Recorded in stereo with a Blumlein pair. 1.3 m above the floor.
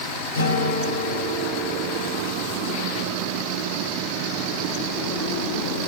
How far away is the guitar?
About 6 m.